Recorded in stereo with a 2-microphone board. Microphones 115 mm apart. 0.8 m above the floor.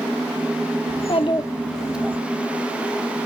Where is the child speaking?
65° left (ahead or behind), 1.2 m; by 2.2 s 20° right (ahead or behind), 1.2 m.